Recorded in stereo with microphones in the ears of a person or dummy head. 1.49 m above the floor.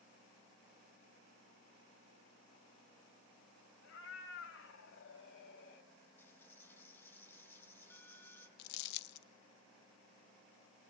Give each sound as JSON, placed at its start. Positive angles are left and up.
{"t": 3.8, "sound": "a cat meowing", "side_deg": 75, "distance_m": 4.0}
{"t": 6.2, "sound": "a dropped coin", "side_deg": 15, "distance_m": 4.0}
{"t": 8.6, "sound": "crumpling", "side_deg": 65, "distance_m": 0.8}